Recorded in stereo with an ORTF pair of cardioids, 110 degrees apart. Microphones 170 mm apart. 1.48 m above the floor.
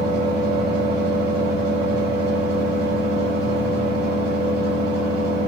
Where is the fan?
65° right, 1.6 m.